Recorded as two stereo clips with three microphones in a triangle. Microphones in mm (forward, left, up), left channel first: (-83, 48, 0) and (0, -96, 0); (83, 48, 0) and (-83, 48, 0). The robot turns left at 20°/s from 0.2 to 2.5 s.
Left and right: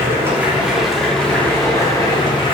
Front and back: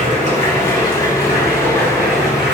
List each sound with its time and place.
0.0 s running water: 135° right, 3 m; by 2.5 s straight behind, 3 m